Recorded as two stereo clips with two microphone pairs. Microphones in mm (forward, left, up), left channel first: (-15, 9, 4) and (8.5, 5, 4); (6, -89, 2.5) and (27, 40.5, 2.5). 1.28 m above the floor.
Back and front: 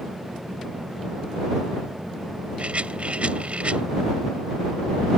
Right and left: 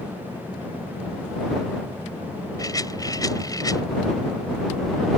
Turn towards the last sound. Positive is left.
turn(degrees=-40)